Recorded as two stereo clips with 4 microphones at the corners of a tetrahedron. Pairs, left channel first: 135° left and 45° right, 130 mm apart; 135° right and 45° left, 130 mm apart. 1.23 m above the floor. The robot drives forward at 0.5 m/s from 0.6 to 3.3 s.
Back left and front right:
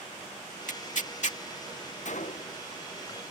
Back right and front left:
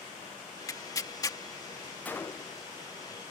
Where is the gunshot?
145° left; by 2.6 s 160° left.